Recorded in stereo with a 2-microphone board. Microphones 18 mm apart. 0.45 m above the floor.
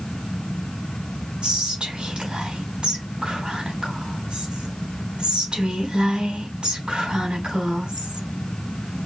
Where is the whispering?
70° right (ahead or behind), 3.5 m.